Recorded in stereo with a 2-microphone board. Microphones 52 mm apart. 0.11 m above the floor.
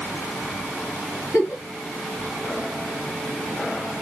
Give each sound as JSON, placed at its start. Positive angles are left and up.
{"t": 1.3, "sound": "a giggle", "side_deg": 30, "distance_m": 2.0}